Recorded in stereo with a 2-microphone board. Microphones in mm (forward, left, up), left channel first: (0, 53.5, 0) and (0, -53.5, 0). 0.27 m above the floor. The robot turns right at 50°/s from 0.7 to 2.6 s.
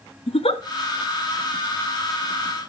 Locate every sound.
0.3 s a giggle: 70° left (ahead or behind), 1.1 m